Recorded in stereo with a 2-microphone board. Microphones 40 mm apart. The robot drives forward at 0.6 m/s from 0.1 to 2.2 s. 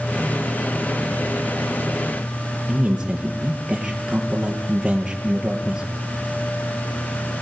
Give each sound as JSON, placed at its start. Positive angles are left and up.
{"t": 2.7, "sound": "a man speaking", "side_deg": -15, "distance_m": 4.0}